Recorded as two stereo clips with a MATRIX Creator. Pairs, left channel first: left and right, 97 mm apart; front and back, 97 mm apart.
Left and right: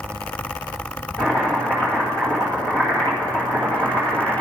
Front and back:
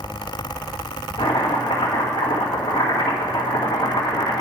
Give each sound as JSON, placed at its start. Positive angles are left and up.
{"t": 1.2, "sound": "chopping", "azimuth_deg": 15, "distance_m": 2.5}